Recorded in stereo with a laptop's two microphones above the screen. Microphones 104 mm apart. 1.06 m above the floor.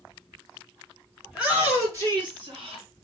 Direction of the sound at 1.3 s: 10° right (ahead or behind).